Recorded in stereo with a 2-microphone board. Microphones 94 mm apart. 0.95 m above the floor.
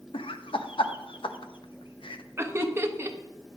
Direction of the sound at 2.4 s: 25° right (ahead or behind).